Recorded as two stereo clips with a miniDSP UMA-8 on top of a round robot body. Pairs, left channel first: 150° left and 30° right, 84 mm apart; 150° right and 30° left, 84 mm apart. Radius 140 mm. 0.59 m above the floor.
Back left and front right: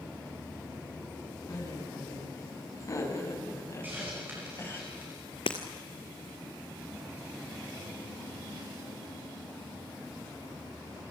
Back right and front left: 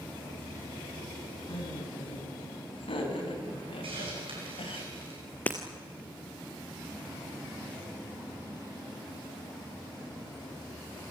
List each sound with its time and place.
1.5 s laughter: 160° right, 7 m; by 4.8 s 150° right, 4 m
3.8 s a hiss: 35° left, 7 m
5.5 s breaking glass: 140° left, 0.6 m